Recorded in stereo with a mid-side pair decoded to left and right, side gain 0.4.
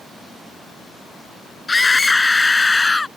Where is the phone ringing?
No phone ringing in this recording.